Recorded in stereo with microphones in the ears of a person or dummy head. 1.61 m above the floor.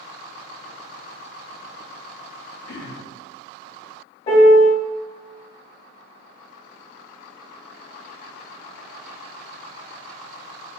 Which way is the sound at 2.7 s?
60° left (ahead or behind).